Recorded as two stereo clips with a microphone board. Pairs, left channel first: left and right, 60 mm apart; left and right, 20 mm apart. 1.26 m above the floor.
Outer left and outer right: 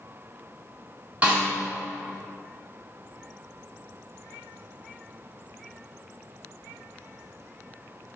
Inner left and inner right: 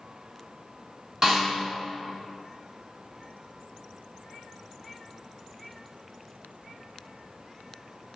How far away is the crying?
I don't hear crying.